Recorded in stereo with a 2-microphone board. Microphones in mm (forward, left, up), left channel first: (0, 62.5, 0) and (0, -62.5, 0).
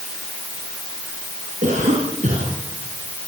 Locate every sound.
1.6 s a cough: 80° right, 6.5 m